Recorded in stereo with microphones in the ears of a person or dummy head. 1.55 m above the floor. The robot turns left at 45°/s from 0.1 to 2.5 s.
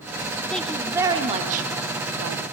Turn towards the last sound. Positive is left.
turn(degrees=-85)